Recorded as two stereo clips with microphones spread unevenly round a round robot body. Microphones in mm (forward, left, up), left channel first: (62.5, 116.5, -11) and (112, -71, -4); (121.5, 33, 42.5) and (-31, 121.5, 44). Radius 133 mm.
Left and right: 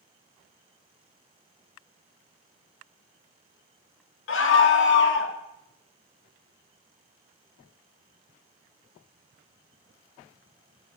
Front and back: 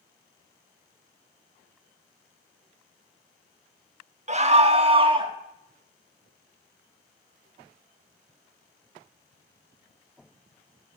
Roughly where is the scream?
Left.